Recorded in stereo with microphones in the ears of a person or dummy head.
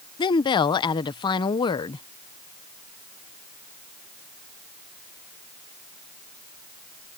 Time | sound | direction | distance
0.2 | a woman speaking | 25° left (ahead or behind) | ?